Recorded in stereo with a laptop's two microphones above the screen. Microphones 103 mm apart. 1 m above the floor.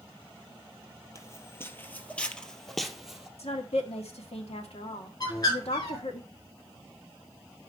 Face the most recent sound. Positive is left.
turn(degrees=40)  # may be behind; listen again after turning